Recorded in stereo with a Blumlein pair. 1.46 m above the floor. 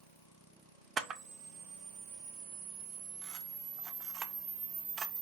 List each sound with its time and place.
1.0 s a camera shutter: 25° right, 0.6 m